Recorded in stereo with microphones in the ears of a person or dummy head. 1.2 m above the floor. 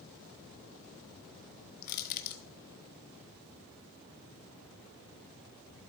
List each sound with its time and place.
1.8 s crushing: 50° left (ahead or behind), 1.2 m